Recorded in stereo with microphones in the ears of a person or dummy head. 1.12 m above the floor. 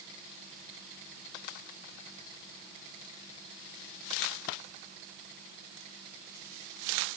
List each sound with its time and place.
Only background noise.